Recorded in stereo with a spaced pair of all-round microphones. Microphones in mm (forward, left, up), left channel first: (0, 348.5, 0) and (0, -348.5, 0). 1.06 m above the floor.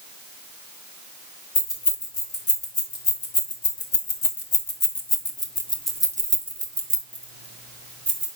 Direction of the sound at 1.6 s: 90° left.